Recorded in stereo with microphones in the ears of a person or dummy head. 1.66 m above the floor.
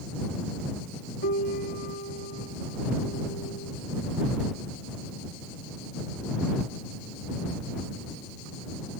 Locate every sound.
1.2 s a piano: 45° left (ahead or behind)